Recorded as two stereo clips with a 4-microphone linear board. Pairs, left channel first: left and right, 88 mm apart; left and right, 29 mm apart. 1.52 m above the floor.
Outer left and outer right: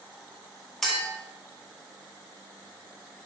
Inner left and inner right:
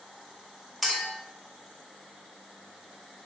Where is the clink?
5° left (ahead or behind), 1.8 m.